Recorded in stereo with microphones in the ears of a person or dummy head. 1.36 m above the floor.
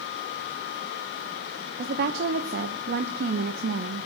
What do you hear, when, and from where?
1.8 s a woman speaking: 55° right (ahead or behind), 1.0 m